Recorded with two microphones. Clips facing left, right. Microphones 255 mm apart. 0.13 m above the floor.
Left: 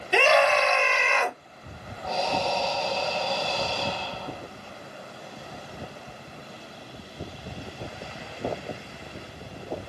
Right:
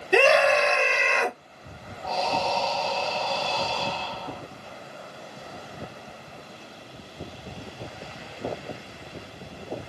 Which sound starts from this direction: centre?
Breathing, at 2.0 s.